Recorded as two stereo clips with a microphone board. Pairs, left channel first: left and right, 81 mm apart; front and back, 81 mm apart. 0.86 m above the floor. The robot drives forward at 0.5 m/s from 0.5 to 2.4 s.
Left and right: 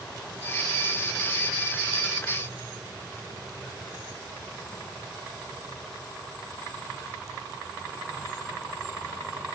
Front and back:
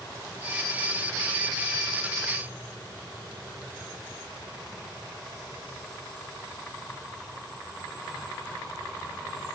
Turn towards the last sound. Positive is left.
No sound to turn to.